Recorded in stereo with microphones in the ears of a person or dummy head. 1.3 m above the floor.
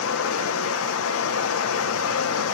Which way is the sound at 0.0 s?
80° left.